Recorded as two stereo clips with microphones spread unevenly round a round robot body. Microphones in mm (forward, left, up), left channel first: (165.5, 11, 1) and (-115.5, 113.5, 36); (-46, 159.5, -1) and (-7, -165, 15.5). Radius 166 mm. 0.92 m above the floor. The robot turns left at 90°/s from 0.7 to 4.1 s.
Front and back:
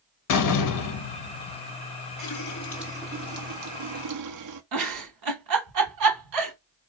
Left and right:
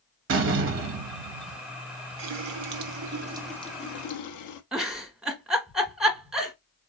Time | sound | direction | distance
0.3 | a door slam | 30° right | 0.9 m
2.2 | a running tap | 55° right | 1.0 m
4.7 | a giggle | 170° right | 1.0 m